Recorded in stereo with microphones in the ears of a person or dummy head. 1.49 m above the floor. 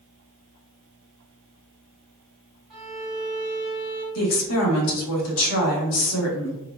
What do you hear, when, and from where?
2.7 s a violin: 5° right (ahead or behind), 1.1 m
4.2 s a woman speaking: 70° left (ahead or behind), 1.0 m